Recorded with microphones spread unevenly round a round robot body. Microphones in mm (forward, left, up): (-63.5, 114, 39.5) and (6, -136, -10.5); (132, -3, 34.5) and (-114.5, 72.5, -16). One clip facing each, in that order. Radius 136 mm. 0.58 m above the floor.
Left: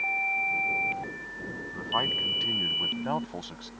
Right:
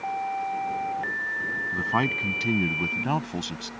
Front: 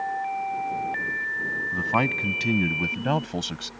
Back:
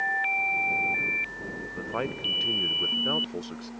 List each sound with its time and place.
1.7 s a man speaking: 35° right; by 3.7 s 25° right